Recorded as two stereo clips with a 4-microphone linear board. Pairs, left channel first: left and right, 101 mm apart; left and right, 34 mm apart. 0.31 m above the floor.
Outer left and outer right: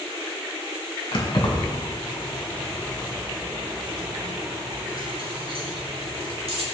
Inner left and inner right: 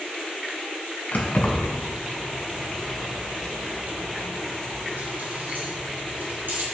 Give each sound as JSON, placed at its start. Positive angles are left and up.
{"t": 1.1, "sound": "keys jangling", "side_deg": 60, "distance_m": 2.5}